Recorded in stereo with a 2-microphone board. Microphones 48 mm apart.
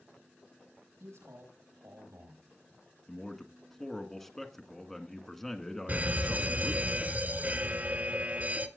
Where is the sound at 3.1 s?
10° left (ahead or behind), 1.3 m.